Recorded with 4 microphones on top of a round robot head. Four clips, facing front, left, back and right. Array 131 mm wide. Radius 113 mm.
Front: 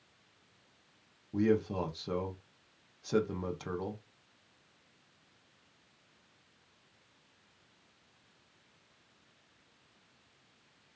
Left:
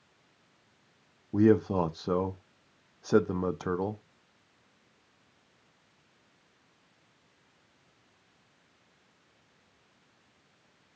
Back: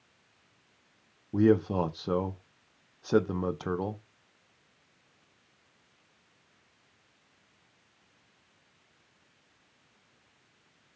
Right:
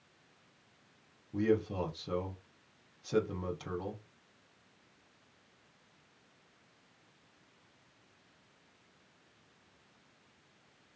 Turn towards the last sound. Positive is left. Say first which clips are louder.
# left 8 dB, back 6 dB
turn(degrees=125)